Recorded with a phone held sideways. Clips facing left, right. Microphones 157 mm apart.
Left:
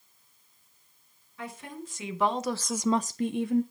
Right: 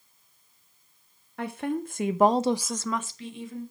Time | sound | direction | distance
1.4 | a woman speaking | 70° right (ahead or behind) | 1.5 m